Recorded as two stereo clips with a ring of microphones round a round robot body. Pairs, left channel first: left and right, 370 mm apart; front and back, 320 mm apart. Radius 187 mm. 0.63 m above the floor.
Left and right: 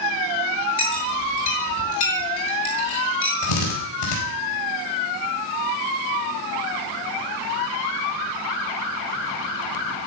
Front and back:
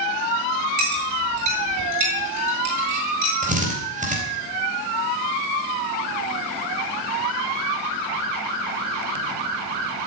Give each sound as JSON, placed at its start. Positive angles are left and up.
{"t": 0.8, "sound": "a clink", "azimuth_deg": 150, "distance_m": 7.5}
{"t": 3.4, "sound": "a drill", "azimuth_deg": 115, "distance_m": 4.5}